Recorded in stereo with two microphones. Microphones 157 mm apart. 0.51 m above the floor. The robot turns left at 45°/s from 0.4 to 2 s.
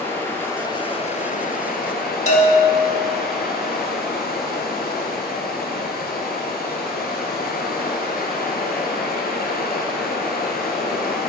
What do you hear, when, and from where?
0.0 s running water: 165° left, 1.6 m; by 11.3 s 95° left, 1.6 m
2.3 s a bell: 45° left (ahead or behind), 1.2 m